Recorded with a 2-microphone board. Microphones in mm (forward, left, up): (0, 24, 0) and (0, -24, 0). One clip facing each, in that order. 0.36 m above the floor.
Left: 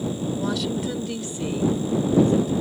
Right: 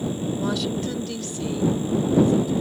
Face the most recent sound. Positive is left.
turn(degrees=45)  # may be behind; listen again after turning